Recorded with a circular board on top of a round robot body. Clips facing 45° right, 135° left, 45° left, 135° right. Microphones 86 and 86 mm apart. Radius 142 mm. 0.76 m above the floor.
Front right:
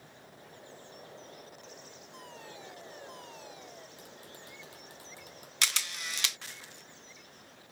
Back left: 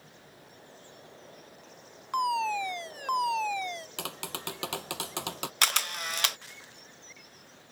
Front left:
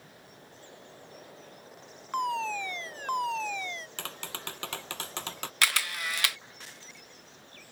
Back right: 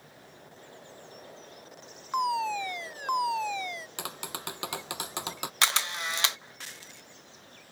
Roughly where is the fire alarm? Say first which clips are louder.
Back left 22 dB, back right 2 dB; behind left.